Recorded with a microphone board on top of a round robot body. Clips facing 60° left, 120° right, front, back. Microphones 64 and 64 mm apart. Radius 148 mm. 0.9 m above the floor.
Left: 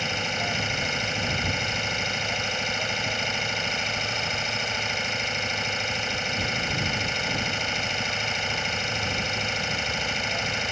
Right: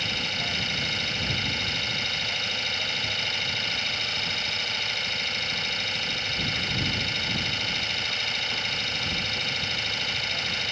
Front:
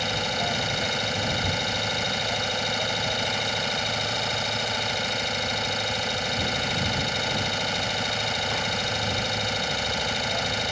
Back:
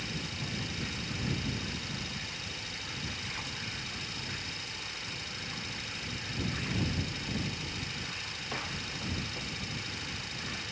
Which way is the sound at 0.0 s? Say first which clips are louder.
Left 3 dB, front 12 dB; 10° right.